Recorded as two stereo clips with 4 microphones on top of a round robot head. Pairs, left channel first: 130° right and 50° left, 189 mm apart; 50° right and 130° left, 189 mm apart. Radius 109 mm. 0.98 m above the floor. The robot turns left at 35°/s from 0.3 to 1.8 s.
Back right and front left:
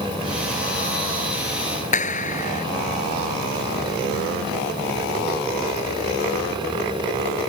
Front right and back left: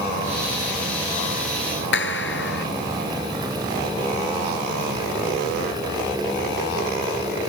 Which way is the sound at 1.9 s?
80° right.